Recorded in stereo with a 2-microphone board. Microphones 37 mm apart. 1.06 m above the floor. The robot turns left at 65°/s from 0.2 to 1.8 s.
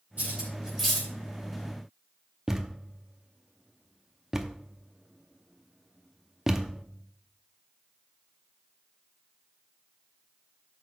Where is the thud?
15° right (ahead or behind), 0.7 m.